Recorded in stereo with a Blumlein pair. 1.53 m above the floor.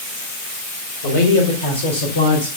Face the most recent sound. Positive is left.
turn(degrees=70)